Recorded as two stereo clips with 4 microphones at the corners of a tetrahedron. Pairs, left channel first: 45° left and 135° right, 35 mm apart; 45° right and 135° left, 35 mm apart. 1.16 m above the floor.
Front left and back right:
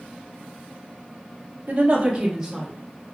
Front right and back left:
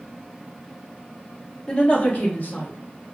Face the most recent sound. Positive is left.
turn(degrees=-60)